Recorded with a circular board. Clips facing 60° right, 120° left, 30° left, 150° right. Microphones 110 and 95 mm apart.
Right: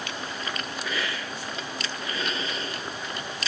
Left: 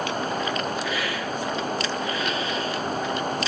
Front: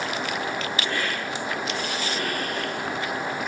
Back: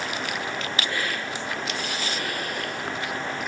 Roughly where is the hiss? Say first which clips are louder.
Left 4 dB, front 1 dB; ahead.